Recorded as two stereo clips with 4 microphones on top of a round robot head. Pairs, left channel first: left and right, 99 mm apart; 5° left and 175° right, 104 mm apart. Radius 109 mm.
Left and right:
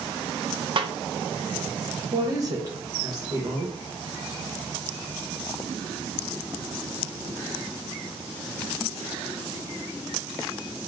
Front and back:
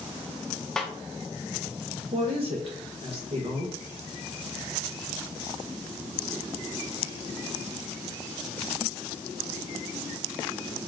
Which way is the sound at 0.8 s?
80° right.